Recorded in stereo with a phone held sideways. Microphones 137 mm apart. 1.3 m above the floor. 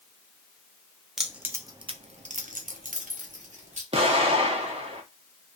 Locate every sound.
1.2 s keys jangling: 5° right (ahead or behind), 0.7 m; by 3.8 s 65° right (ahead or behind), 1.2 m
3.9 s an explosion: 45° right (ahead or behind), 0.9 m